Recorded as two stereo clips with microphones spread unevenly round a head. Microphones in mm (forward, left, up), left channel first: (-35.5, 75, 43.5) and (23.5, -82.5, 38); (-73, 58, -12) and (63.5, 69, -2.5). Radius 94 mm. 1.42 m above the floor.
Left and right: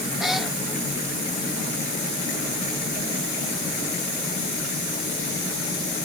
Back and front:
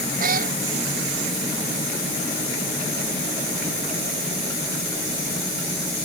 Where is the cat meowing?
20° left.